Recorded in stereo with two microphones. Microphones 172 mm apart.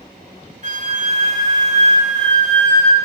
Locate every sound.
0.6 s a flute: 45° right (ahead or behind), 1.8 m